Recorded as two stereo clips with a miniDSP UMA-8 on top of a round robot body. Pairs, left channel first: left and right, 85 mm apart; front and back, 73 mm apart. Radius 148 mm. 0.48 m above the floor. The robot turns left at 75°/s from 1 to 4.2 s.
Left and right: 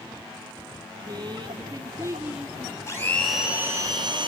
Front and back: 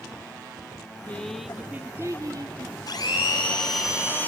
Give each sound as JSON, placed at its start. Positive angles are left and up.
{"t": 1.1, "sound": "a woman speaking", "azimuth_deg": -65, "distance_m": 1.4}
{"t": 2.9, "sound": "a blender", "azimuth_deg": 35, "distance_m": 2.5}